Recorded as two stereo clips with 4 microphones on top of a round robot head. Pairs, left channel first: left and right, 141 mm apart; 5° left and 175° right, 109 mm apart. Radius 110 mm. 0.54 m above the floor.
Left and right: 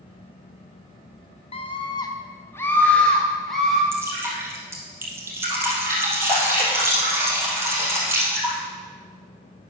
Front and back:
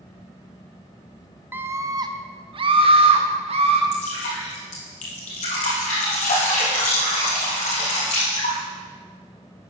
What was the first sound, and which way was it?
A scream, 115° left.